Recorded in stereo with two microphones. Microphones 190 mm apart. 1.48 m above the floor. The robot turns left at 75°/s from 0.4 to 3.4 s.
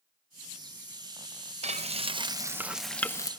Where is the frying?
90° right, 0.7 m; by 3.3 s 145° left, 0.7 m.